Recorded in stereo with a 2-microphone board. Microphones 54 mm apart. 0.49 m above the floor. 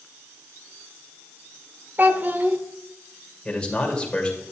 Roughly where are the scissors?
I don't hear scissors.